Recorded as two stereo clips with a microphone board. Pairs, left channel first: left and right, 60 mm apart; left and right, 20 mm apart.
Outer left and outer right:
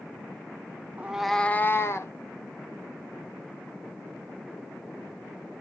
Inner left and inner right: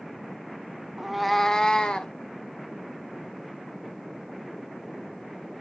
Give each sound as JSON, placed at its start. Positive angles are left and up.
{"t": 1.0, "sound": "a cat meowing", "side_deg": -25, "distance_m": 0.8}